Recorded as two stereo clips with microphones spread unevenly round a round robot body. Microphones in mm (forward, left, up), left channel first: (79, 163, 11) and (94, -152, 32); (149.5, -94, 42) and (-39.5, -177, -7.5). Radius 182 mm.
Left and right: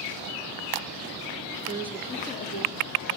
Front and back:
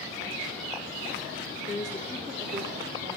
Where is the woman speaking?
15° right, 0.9 m; by 3.2 s 145° left, 2.0 m.